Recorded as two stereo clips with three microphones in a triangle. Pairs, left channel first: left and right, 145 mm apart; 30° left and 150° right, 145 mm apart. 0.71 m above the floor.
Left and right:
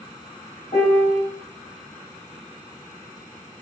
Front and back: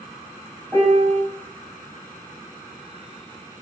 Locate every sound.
0.7 s a piano: 130° left, 1.2 m